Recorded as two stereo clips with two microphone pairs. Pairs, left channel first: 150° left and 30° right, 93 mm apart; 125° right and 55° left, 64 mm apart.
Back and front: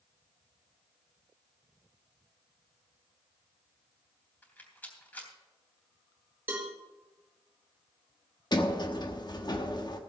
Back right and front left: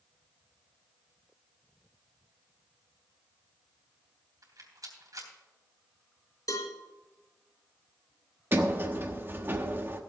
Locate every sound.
4.4 s a rattle: 80° left, 3 m
6.5 s a cowbell: 100° right, 3.5 m
8.5 s a sliding door: 115° left, 1.1 m